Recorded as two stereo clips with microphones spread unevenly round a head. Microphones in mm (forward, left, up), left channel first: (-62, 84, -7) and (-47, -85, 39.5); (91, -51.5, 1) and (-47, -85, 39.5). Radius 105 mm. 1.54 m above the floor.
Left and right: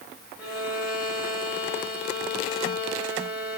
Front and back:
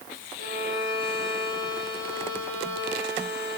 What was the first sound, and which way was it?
A violin, 165° right.